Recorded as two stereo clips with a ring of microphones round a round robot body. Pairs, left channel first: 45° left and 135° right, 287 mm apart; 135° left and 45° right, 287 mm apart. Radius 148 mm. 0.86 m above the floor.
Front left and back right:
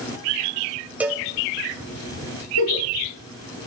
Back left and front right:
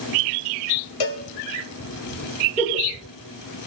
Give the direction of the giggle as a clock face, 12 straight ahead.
10 o'clock.